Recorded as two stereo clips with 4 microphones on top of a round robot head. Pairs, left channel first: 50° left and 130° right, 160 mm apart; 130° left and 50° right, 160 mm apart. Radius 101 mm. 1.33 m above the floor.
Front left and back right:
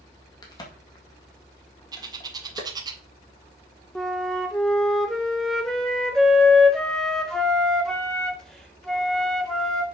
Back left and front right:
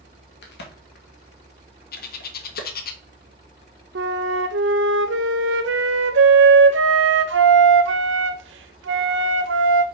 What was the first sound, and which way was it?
A crack, 115° left.